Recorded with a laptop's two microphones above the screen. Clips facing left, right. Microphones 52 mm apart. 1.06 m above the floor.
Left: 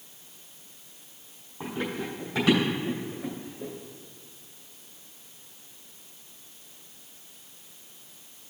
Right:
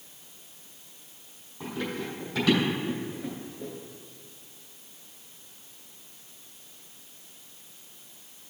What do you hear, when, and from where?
1.6 s running footsteps: 25° left (ahead or behind), 2 m; by 3.7 s 5° left (ahead or behind), 3 m